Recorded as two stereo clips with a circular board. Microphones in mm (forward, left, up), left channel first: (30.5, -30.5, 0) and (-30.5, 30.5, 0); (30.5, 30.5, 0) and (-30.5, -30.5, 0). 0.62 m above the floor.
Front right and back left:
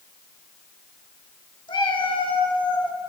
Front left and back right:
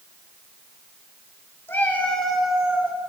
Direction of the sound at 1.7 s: 20° right.